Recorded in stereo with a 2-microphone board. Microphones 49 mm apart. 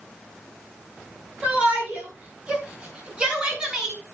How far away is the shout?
About 8 m.